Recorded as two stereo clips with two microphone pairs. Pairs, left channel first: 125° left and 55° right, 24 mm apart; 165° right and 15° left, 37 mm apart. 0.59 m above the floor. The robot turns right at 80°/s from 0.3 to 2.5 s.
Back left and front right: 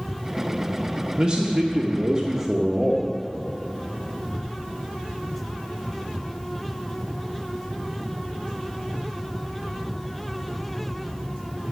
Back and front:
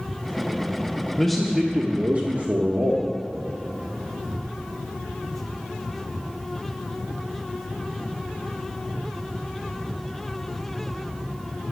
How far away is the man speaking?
About 1.2 m.